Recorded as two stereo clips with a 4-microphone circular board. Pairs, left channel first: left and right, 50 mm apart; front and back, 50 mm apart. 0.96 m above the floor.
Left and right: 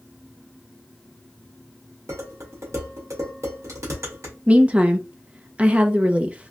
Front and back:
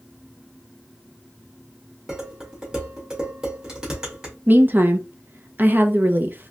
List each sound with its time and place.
2.1 s dishes clattering: 100° right, 1.8 m
4.5 s a woman speaking: 145° right, 0.6 m